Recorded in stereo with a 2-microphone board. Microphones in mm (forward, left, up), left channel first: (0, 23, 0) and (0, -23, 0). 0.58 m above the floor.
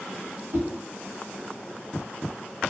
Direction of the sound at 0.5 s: 70° right (ahead or behind).